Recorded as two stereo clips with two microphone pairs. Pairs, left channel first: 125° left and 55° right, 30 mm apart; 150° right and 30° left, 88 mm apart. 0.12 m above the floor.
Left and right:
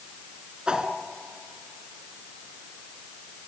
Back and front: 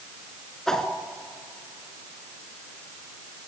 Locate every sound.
0.7 s a whoosh: 75° right, 1.8 m